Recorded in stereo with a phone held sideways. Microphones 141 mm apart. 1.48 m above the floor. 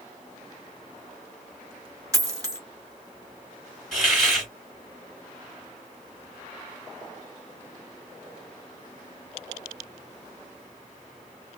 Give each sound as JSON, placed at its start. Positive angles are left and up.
{"t": 2.1, "sound": "a dropped coin", "side_deg": -25, "distance_m": 1.0}
{"t": 3.9, "sound": "a hiss", "side_deg": 0, "distance_m": 2.0}